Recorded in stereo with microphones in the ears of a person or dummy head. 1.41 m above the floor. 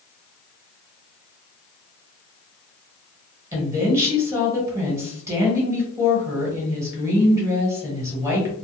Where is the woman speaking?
20° right (ahead or behind), 1.3 m.